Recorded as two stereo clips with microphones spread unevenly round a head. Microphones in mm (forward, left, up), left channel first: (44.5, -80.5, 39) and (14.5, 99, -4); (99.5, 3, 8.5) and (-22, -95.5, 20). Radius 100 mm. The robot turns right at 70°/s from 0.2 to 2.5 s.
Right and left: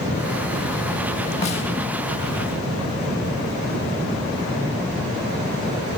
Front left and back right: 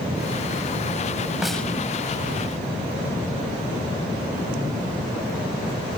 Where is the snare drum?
60° right, 1.2 m; by 1.6 s 45° right, 1.2 m.